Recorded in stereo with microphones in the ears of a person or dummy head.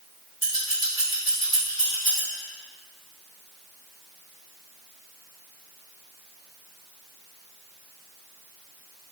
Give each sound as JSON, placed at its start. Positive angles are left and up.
{"t": 0.4, "sound": "scissors", "side_deg": 45, "distance_m": 1.6}